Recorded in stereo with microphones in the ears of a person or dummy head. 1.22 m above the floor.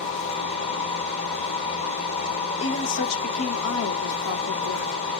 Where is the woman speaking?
85° left, 1.0 m.